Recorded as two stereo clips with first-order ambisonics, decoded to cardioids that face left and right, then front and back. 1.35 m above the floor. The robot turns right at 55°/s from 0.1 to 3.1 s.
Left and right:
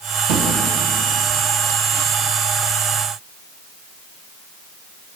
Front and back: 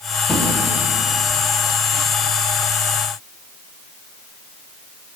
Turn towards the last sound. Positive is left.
turn(degrees=75)